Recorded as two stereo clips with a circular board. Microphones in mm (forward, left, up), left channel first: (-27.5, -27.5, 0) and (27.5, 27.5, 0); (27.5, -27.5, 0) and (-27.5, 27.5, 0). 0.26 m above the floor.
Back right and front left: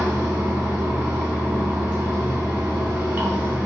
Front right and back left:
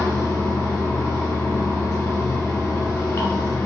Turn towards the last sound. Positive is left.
turn(degrees=-15)